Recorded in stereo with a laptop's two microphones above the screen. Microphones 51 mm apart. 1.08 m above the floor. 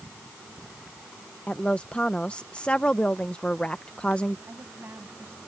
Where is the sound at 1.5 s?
20° left (ahead or behind).